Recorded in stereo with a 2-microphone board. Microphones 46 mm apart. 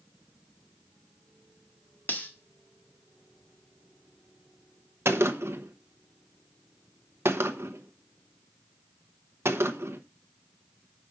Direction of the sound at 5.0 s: 70° right (ahead or behind).